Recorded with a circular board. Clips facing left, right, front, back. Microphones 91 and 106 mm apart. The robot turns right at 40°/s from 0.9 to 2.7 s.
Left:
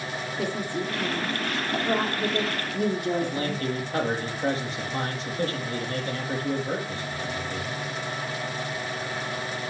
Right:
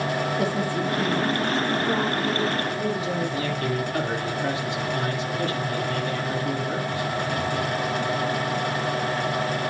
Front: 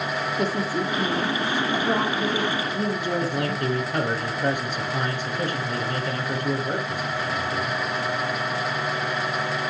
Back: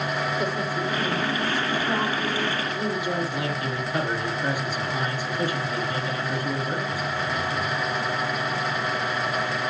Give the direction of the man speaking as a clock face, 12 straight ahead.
11 o'clock.